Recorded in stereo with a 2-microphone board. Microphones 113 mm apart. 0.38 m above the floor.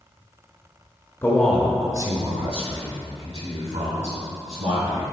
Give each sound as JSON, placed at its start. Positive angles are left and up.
{"t": 1.2, "sound": "a man speaking", "side_deg": 20, "distance_m": 1.0}